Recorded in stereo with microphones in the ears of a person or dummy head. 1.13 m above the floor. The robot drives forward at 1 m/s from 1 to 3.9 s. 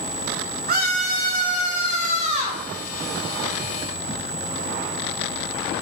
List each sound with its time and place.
0.7 s a scream: 60° right (ahead or behind), 3.5 m; by 2.6 s 40° right (ahead or behind), 4.5 m